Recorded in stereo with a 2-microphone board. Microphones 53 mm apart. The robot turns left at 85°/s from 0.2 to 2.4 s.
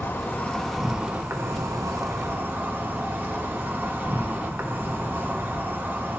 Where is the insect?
45° left, 0.9 m; by 6.2 s 140° right, 0.9 m.